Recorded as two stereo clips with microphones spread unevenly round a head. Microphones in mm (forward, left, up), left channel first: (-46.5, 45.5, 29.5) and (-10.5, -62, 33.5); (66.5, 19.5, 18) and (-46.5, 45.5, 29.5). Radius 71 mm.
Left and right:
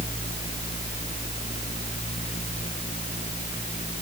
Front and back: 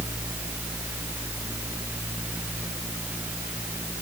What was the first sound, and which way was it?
Only background noise.